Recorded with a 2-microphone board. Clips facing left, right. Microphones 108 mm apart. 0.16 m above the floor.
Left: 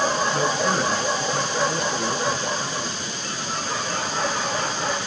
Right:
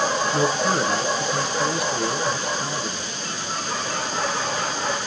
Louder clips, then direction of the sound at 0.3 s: Right 1 dB; 10° right (ahead or behind).